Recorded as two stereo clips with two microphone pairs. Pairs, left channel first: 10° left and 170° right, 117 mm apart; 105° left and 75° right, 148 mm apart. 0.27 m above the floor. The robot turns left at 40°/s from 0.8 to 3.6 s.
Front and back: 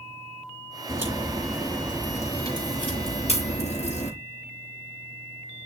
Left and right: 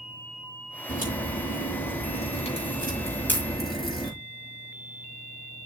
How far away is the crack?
About 6 m.